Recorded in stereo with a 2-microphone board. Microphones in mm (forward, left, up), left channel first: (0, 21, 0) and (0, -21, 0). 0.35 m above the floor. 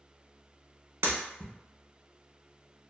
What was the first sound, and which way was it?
Breaking glass, 80° right.